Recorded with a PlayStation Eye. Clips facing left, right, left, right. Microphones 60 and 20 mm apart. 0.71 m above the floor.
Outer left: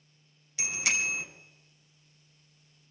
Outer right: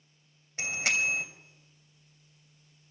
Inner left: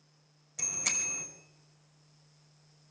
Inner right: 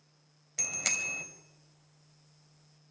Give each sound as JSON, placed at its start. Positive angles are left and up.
{"t": 0.6, "sound": "a bicycle bell", "side_deg": -45, "distance_m": 2.5}